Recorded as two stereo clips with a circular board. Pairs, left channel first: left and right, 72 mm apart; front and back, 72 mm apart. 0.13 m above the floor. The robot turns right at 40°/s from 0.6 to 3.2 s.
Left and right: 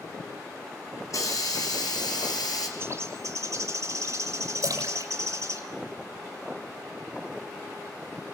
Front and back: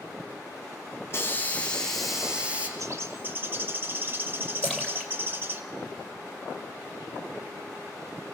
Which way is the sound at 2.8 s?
140° right.